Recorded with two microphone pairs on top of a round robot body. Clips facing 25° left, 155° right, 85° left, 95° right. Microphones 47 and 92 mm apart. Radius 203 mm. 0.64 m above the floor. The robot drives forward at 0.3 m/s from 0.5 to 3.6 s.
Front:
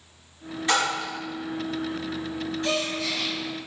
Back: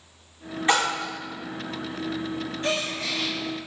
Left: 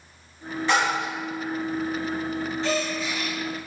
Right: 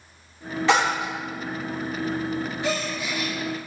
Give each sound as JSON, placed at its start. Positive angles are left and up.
{"t": 0.7, "sound": "a splash", "azimuth_deg": -90, "distance_m": 0.8}
{"t": 2.6, "sound": "a gasp", "azimuth_deg": -160, "distance_m": 1.2}